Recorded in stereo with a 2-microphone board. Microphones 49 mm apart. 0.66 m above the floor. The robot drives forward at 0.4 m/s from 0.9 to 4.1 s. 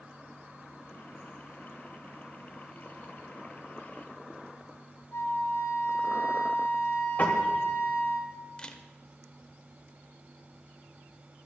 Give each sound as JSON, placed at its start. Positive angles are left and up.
{"t": 5.1, "sound": "a flute", "side_deg": 65, "distance_m": 2.0}
{"t": 7.2, "sound": "a piano", "side_deg": 35, "distance_m": 1.9}
{"t": 8.6, "sound": "a camera shutter", "side_deg": 20, "distance_m": 0.8}